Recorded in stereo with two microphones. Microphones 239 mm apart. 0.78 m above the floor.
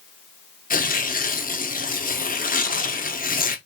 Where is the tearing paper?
35° left (ahead or behind), 0.5 m.